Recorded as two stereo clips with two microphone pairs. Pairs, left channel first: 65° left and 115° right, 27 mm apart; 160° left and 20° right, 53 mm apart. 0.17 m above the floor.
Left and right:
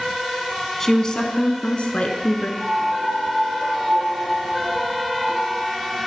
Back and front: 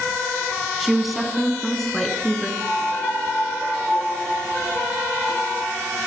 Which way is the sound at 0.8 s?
55° left.